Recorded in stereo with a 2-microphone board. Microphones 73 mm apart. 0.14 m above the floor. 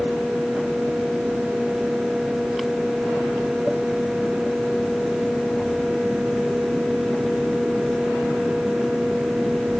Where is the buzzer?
I don't hear a buzzer.